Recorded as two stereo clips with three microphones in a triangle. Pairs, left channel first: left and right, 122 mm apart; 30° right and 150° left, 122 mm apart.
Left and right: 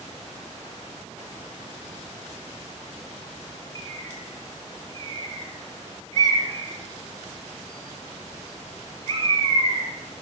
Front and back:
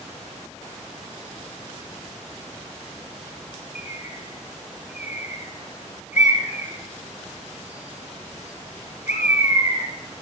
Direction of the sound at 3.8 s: 50° right.